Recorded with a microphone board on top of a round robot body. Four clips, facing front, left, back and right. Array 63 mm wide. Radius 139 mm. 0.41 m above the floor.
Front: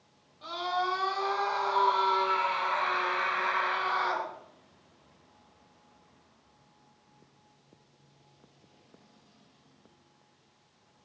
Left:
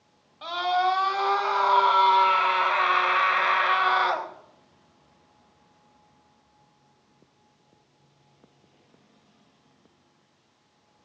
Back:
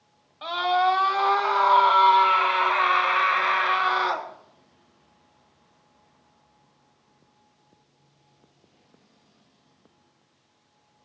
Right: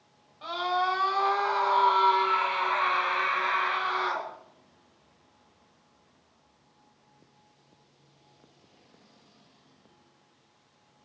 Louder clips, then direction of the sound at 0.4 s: Left 4 dB, back 9 dB; 160° left.